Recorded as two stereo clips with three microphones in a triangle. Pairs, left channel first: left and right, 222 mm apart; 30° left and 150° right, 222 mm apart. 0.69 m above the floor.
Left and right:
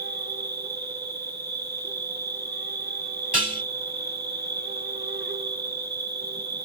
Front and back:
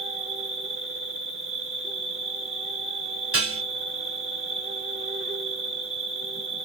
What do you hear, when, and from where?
0.0 s an insect: 100° right, 1.4 m
3.3 s dishes clattering: 145° right, 3 m